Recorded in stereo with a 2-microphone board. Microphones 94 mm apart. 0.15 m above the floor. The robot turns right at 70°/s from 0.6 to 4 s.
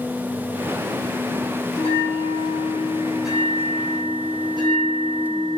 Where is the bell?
80° left, 3.5 m; by 5.6 s 125° right, 3.5 m.